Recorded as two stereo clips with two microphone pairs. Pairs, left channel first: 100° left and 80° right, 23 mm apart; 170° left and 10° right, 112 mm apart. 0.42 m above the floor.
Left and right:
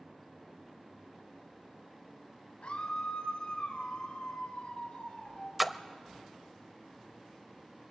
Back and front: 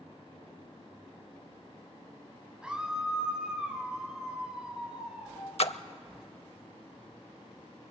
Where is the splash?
165° right, 0.6 m.